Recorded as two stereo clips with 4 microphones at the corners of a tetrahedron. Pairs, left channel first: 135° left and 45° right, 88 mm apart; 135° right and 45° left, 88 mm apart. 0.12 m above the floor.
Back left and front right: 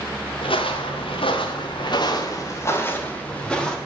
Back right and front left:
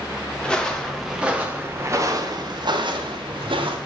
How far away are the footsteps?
About 2 m.